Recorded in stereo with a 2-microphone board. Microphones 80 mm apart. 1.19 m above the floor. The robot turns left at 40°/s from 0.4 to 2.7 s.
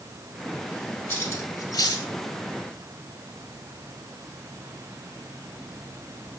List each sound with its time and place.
1.1 s cutlery clinking: 30° left (ahead or behind), 4 m; by 2.1 s 70° left (ahead or behind), 4 m